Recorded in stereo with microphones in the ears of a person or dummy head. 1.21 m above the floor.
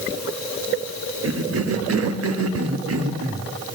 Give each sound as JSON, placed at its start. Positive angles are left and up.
{"t": 1.2, "sound": "a cough", "side_deg": -80, "distance_m": 2.5}